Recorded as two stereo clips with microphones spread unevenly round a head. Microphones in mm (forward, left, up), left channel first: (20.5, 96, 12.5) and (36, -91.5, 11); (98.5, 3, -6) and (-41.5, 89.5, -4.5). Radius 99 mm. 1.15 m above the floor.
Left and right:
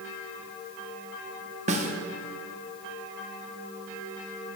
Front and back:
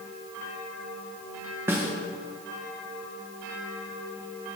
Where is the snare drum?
135° right, 1.1 m.